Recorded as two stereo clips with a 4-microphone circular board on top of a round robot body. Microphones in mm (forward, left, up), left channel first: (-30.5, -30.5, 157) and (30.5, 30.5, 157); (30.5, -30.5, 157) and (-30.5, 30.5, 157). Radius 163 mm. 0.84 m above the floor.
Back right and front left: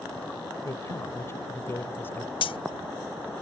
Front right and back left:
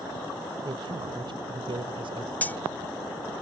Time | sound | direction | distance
0.7 | a man speaking | 170° left | ?
2.4 | cutlery clinking | 115° right | ?